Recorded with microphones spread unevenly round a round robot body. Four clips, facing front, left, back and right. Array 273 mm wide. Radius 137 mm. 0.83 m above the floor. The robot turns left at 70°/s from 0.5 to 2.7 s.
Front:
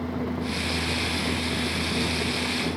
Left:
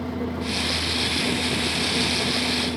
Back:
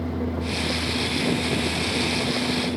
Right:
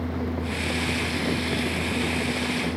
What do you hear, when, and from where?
Only background noise.